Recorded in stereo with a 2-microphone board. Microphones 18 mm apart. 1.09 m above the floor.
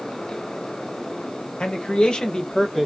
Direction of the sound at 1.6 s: 75° left (ahead or behind).